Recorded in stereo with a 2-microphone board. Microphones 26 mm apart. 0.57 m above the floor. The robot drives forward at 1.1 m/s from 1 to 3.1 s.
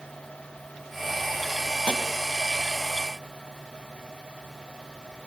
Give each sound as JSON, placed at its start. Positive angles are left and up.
{"t": 1.9, "sound": "tapping", "side_deg": 55, "distance_m": 1.9}